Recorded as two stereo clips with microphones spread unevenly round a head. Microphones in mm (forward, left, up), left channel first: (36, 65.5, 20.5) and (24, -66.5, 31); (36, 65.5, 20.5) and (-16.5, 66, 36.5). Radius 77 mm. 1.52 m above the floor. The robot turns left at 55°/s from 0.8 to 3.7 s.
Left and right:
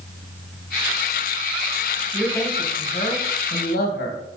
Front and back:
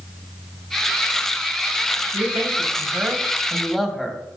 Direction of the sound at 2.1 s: 170° left.